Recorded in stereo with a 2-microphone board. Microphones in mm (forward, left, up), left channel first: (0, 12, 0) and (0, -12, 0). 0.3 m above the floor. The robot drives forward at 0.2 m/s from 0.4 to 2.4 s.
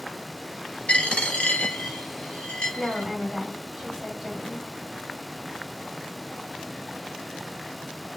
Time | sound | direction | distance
0.9 | a dropped coin | 55° left (ahead or behind) | 1.1 m
2.8 | a woman speaking | centre (ahead or behind) | 1.9 m